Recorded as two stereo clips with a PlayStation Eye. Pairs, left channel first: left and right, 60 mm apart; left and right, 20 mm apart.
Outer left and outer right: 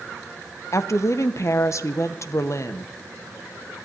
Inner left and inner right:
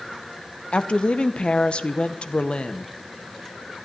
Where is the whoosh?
I don't hear a whoosh.